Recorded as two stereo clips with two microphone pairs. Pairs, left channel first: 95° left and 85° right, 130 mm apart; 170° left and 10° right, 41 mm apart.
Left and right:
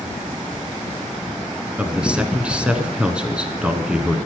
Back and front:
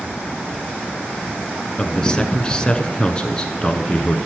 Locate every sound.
1.8 s a man speaking: 155° right, 1.2 m